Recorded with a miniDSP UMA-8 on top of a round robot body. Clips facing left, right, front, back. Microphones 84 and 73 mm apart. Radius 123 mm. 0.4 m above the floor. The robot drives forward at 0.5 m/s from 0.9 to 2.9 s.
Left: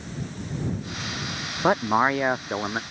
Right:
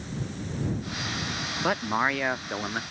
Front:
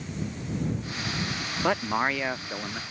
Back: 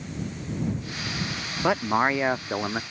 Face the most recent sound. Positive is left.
turn(degrees=155)